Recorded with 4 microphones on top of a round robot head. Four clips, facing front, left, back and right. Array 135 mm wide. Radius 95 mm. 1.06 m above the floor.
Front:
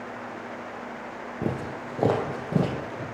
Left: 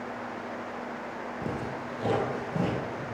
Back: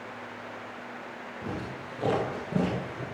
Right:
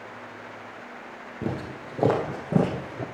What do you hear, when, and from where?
1.4 s footsteps: 20° right, 1.7 m; by 3.0 s 80° right, 2 m